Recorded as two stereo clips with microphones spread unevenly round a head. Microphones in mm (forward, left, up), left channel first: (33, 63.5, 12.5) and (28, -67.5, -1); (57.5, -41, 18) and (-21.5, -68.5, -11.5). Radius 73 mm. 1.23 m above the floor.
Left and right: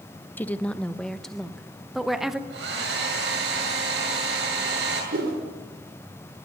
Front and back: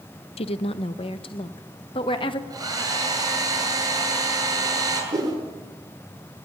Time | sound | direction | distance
0.4 | a woman speaking | 10° left | 0.8 m
2.5 | a hair dryer | 115° right | 9.5 m
5.1 | a whoosh | 115° right | 4.5 m